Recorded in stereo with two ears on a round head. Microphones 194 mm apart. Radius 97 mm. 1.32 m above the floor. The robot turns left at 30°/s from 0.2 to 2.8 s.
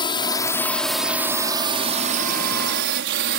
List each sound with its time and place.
0.0 s a drone: 25° left (ahead or behind); by 3.4 s 55° right (ahead or behind)